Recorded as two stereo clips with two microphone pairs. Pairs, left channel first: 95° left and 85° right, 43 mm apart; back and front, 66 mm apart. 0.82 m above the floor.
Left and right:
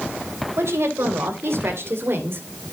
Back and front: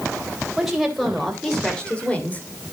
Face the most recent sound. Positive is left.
turn(degrees=-115)